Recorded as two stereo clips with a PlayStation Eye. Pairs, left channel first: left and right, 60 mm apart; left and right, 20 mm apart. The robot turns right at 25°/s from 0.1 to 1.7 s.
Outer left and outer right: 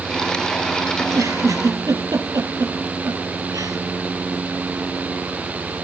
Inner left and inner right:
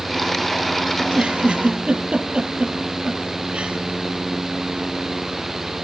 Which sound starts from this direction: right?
A giggle, at 1.0 s.